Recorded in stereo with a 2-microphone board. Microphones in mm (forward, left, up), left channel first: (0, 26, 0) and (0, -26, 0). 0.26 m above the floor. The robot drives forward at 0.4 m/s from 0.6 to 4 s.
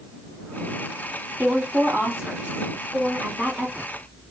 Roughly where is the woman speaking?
Right.